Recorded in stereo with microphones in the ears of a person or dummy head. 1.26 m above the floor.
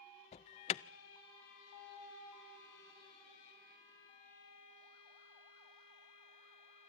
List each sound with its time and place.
0.3 s an alarm: 30° left (ahead or behind), 0.5 m